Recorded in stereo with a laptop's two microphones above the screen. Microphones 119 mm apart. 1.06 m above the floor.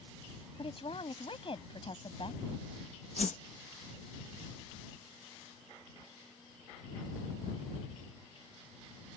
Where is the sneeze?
I don't hear a sneeze.